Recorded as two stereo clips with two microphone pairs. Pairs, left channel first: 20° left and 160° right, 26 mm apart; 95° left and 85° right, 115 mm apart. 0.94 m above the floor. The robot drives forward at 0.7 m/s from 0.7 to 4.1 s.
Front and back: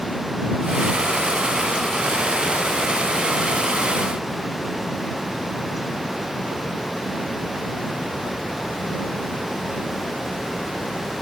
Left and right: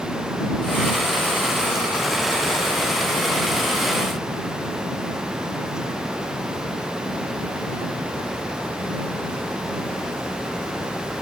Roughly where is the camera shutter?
I don't hear a camera shutter.